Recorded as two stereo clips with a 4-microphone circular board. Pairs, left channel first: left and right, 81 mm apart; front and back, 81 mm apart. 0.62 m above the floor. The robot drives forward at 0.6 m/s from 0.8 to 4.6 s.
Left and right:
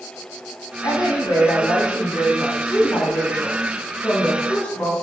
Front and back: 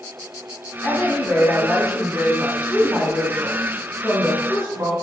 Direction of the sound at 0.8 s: 65° left.